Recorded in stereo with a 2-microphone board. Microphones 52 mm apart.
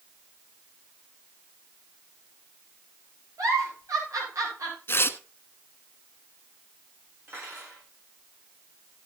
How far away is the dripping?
I don't hear dripping.